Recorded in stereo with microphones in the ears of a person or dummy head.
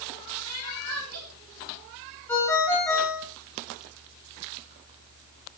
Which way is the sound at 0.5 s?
85° right.